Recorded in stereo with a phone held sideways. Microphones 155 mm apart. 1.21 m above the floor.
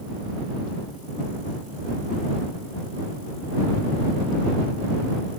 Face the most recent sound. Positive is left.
No sound to turn to.